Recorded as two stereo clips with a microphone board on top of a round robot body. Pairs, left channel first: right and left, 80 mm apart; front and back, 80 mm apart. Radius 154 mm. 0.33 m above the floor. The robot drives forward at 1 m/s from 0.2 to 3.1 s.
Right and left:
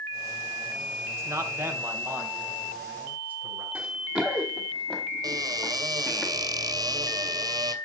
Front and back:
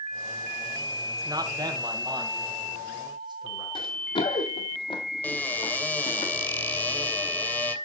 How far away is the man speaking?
About 2.5 m.